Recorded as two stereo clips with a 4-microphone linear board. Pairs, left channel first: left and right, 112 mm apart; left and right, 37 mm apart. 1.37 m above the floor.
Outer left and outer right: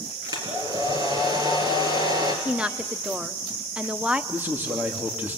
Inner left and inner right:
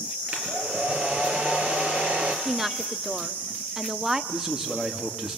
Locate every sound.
0.3 s a hair dryer: 35° right (ahead or behind), 4 m
2.5 s a woman speaking: 10° right (ahead or behind), 1.0 m
4.3 s a man speaking: 15° right (ahead or behind), 3 m